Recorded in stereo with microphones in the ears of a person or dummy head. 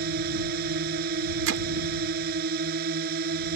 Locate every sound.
0.0 s a drone: 55° right (ahead or behind)
1.5 s hammering: 75° right (ahead or behind)